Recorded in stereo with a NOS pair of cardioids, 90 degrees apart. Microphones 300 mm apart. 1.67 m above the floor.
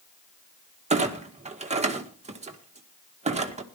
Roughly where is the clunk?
Ahead.